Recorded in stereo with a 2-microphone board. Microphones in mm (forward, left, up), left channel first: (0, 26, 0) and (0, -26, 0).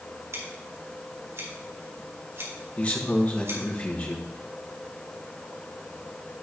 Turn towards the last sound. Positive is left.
turn(degrees=25)  # may be behind; listen again after turning